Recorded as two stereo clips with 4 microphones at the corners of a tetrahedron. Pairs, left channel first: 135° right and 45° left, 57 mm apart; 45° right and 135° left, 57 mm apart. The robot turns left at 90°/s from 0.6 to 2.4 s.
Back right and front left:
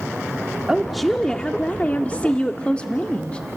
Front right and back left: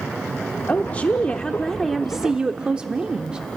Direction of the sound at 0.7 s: 20° right.